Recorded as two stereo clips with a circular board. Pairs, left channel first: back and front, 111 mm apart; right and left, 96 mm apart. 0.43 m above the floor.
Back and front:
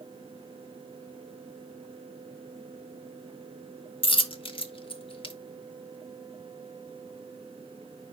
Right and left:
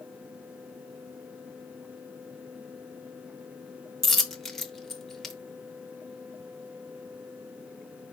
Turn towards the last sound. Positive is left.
turn(degrees=-175)